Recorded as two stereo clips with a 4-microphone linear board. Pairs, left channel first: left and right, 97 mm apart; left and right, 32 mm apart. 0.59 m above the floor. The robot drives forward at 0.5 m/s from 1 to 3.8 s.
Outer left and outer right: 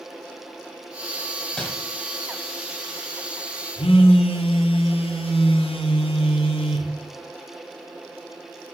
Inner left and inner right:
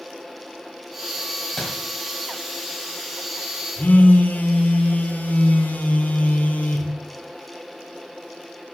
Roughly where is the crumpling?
Centre.